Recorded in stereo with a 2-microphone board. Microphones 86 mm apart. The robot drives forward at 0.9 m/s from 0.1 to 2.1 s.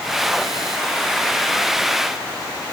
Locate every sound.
Only background noise.